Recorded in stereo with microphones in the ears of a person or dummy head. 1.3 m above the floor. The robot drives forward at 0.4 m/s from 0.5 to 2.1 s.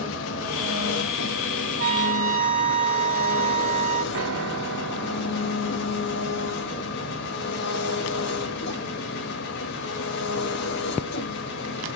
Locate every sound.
0.0 s an engine running: 80° left, 1.4 m; by 12.0 s 65° left (ahead or behind), 1.5 m
1.8 s a trumpet: 45° right (ahead or behind), 1.3 m
4.1 s a piano: 75° right (ahead or behind), 1.7 m